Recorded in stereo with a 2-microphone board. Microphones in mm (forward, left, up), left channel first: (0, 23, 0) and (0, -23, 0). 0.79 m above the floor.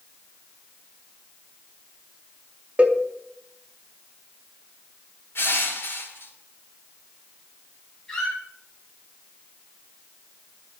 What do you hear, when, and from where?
2.8 s a cowbell: 30° right (ahead or behind), 0.7 m
5.3 s crushing: 55° left (ahead or behind), 1.5 m
8.1 s a squeak: 10° left (ahead or behind), 3 m